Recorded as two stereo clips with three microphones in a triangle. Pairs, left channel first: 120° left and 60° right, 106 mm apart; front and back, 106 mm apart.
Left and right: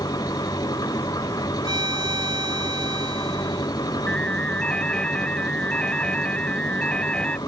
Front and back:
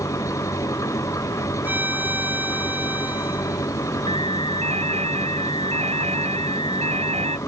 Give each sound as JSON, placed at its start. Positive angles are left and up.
{"t": 0.0, "sound": "an engine running", "azimuth_deg": 65}
{"t": 1.6, "sound": "a violin", "azimuth_deg": -105}
{"t": 4.1, "sound": "an alarm", "azimuth_deg": -160}